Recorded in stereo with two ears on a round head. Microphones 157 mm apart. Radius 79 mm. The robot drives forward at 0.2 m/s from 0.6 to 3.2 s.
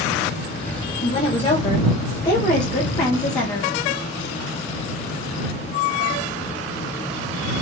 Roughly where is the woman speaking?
Left.